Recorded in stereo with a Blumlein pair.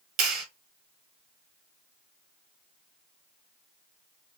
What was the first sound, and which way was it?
A clap, 40° right.